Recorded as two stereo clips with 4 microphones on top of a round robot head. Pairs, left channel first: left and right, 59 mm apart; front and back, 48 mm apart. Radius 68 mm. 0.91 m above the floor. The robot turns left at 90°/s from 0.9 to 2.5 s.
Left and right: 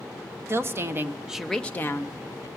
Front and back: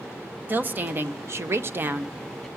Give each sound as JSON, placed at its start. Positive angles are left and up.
{"t": 0.5, "sound": "a woman speaking", "azimuth_deg": -130, "distance_m": 0.8}